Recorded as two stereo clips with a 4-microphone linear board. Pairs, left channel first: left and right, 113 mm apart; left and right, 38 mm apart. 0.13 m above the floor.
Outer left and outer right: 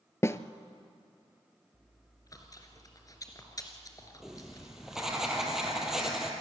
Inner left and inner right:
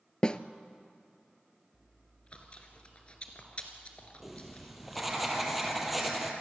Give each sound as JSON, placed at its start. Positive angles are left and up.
{"t": 0.2, "sound": "a snare drum", "side_deg": 25, "distance_m": 0.7}
{"t": 1.7, "sound": "chewing", "side_deg": 30, "distance_m": 2.5}
{"t": 4.2, "sound": "writing", "side_deg": -5, "distance_m": 3.0}